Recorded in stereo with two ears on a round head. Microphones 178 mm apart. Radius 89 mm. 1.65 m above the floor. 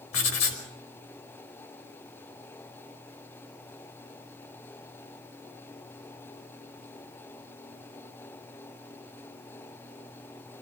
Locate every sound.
0.1 s writing: 75° left (ahead or behind), 4.5 m